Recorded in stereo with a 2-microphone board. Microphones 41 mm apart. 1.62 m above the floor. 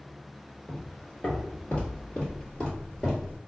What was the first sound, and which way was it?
Footsteps, 35° left (ahead or behind).